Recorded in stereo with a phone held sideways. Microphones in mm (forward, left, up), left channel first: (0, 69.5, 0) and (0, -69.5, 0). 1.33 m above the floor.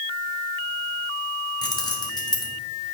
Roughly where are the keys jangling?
Left.